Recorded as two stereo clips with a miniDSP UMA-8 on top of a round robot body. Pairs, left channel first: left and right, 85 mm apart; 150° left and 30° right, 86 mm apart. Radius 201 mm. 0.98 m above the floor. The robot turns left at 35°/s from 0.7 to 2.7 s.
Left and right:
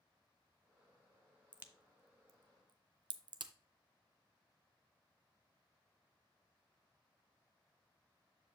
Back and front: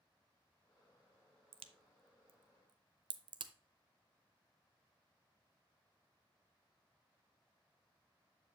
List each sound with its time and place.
1.5 s a crack: 15° right, 0.5 m; by 3.5 s 60° right, 0.5 m